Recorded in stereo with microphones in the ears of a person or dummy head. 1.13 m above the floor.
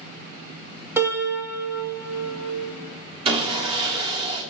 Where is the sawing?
30° right (ahead or behind), 1.0 m.